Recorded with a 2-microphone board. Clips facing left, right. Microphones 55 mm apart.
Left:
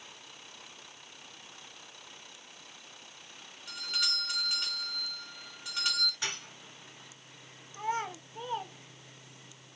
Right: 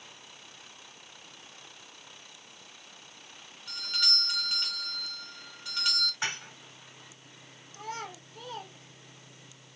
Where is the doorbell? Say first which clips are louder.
Right 2 dB; 10° left (ahead or behind), 3 m.